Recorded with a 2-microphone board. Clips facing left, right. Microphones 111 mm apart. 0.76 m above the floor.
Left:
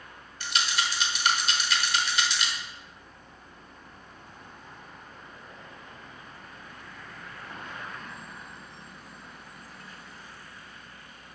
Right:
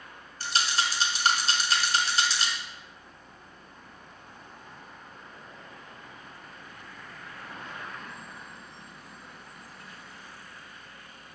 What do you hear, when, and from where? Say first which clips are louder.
0.4 s a rattle: right 1 dB; 35° right (ahead or behind), 1.3 m